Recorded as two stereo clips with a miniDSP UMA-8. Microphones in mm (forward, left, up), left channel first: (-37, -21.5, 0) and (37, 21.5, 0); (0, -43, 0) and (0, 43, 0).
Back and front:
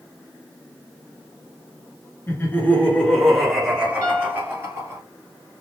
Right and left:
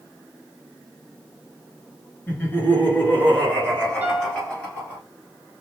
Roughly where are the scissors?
No scissors in this recording.